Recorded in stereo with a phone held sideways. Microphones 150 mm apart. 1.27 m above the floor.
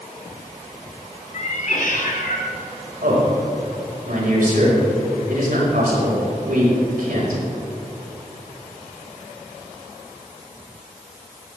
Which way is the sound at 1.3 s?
50° left (ahead or behind).